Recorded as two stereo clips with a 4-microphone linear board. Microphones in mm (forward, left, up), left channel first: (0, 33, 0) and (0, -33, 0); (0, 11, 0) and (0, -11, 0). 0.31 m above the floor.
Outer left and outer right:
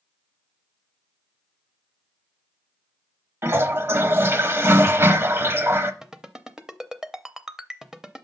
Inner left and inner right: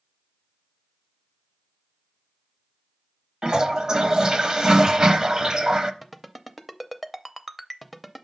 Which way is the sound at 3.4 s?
35° right (ahead or behind).